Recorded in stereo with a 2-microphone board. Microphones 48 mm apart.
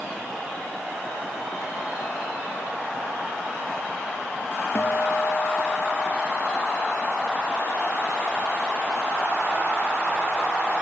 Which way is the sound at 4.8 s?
50° left (ahead or behind).